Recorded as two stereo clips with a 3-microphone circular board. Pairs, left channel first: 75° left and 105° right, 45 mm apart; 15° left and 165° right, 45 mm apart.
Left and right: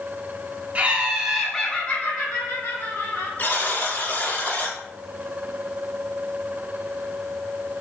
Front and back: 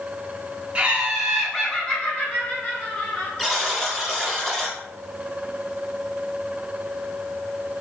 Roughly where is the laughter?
Behind right.